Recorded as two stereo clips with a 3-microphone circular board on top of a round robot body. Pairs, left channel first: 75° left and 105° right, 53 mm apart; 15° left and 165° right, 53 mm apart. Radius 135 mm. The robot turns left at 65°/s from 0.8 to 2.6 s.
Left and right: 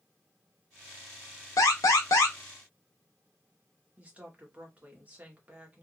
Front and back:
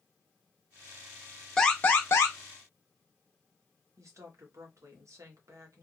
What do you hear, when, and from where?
1.6 s an alarm: 95° left, 0.9 m; by 2.4 s 45° left, 0.9 m
4.0 s a woman speaking: 170° right, 1.8 m